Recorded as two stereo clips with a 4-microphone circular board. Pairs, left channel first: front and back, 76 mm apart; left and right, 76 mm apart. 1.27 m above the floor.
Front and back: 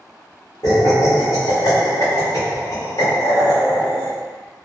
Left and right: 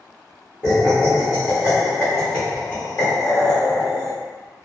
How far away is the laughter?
About 0.9 m.